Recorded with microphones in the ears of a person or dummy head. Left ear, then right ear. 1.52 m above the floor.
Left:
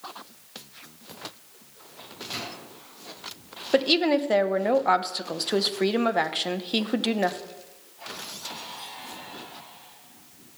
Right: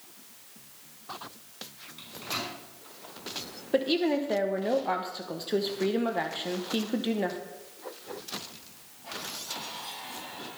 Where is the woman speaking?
40° left (ahead or behind), 0.8 m.